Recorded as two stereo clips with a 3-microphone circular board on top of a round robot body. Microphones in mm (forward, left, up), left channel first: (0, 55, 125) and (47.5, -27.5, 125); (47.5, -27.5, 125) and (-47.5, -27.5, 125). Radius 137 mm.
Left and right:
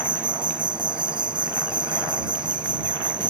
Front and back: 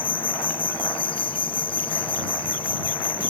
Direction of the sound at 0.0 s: 25° right.